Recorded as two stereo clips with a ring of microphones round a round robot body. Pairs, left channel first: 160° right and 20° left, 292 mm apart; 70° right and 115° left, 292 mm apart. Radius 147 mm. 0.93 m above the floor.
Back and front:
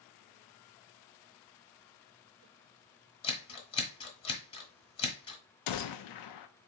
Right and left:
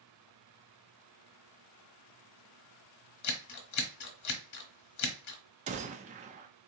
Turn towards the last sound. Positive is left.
turn(degrees=180)